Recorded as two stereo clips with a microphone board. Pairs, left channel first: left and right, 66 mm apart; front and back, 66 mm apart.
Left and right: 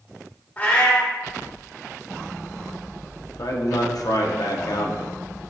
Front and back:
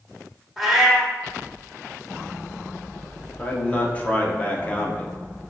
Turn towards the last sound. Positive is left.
turn(degrees=70)